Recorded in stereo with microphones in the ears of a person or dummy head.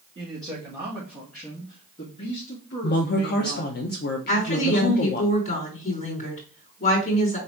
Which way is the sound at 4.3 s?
40° left (ahead or behind).